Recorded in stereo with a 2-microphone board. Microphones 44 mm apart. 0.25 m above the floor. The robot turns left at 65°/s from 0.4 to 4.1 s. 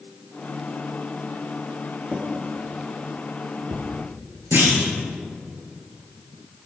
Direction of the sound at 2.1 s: 25° left (ahead or behind).